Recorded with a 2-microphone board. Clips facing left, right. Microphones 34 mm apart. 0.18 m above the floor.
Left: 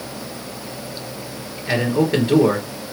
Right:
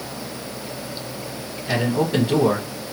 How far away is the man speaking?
About 3 m.